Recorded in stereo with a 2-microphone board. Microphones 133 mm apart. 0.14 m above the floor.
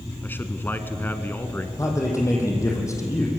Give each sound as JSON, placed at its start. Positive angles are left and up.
{"t": 0.2, "sound": "a man speaking", "side_deg": 15, "distance_m": 1.4}
{"t": 1.8, "sound": "a man speaking", "side_deg": 25, "distance_m": 5.0}